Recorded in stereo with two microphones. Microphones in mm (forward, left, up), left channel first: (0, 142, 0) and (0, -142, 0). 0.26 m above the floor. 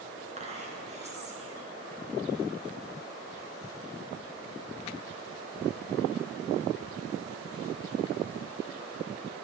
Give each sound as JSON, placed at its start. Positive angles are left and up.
{"t": 0.4, "sound": "whispering", "side_deg": -25, "distance_m": 2.5}